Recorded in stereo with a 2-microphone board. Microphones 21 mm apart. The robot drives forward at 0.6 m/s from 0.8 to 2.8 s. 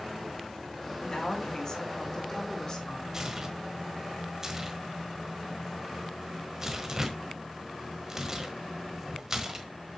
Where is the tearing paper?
25° right (ahead or behind), 1.3 m.